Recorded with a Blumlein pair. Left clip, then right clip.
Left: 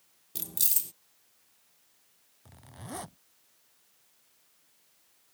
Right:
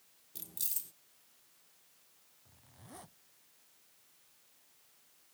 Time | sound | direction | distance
0.3 | keys jangling | 30° left | ?
2.5 | a zipper | 60° left | ?